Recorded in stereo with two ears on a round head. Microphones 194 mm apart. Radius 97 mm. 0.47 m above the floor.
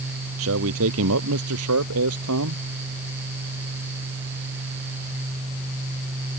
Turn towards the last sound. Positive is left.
turn(degrees=-85)